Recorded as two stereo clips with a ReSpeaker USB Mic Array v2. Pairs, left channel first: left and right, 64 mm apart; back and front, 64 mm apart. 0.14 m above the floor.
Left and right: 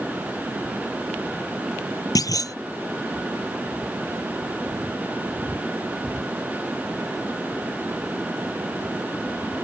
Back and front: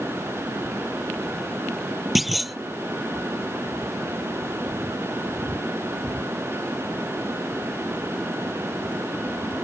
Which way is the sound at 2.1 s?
90° left.